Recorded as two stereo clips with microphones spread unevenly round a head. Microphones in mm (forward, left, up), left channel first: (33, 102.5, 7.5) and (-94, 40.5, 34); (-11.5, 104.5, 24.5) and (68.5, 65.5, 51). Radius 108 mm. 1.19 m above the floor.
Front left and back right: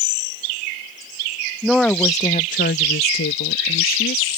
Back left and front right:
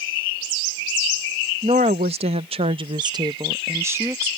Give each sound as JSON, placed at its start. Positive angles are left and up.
{"t": 1.6, "sound": "a woman speaking", "azimuth_deg": -70}